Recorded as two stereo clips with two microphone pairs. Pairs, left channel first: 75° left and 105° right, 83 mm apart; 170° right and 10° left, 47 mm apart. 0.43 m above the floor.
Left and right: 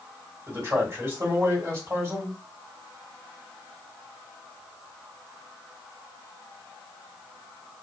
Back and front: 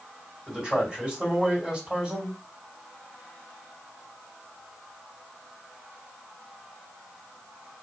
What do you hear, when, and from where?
0.5 s a man speaking: 60° right, 2.0 m